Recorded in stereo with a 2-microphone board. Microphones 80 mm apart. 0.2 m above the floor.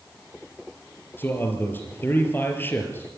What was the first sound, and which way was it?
A man speaking, 25° left (ahead or behind).